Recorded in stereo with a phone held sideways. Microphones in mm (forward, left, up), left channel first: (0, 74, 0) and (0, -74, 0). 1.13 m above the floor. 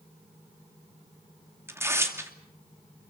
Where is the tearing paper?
15° right (ahead or behind), 2.5 m.